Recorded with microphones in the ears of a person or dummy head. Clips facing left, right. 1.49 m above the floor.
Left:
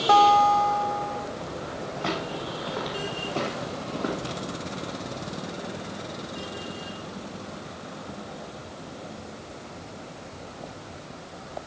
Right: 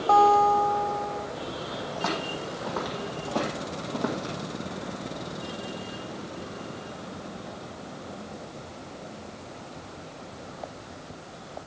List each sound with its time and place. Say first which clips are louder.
0.1 s a guitar: left 1 dB; 25° left (ahead or behind), 0.7 m
1.9 s footsteps: left 1 dB; 65° right (ahead or behind), 3.5 m; by 4.3 s 55° right (ahead or behind), 3 m